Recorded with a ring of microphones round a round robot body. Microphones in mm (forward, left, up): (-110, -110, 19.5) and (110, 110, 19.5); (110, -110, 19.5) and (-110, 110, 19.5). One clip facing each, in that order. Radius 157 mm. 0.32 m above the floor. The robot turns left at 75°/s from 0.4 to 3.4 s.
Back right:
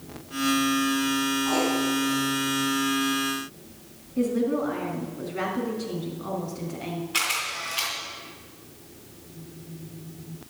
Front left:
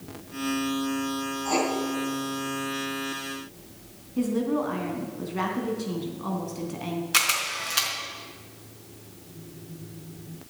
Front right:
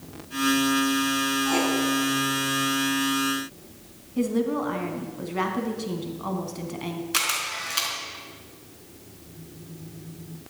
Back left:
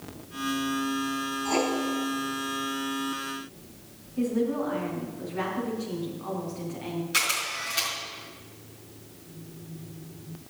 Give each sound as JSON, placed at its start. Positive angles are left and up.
{"t": 1.4, "sound": "writing", "azimuth_deg": 90, "distance_m": 3.5}
{"t": 4.2, "sound": "a woman speaking", "azimuth_deg": -35, "distance_m": 3.0}
{"t": 7.1, "sound": "a camera shutter", "azimuth_deg": 30, "distance_m": 4.0}